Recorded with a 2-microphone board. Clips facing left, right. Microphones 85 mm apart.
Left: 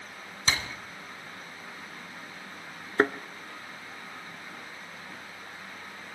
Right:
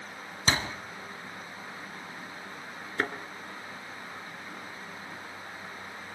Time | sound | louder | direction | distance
0.5 | a door slam | right 2 dB | 40° right (ahead or behind) | 1.3 m
3.0 | a thud | left 7 dB | 40° left (ahead or behind) | 1.2 m